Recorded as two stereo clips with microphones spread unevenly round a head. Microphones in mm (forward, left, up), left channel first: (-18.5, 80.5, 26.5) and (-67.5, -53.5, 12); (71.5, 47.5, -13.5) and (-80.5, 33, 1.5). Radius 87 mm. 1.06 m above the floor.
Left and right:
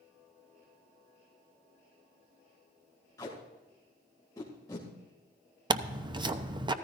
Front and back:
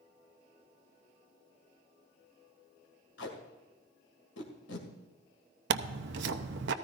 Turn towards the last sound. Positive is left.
turn(degrees=-170)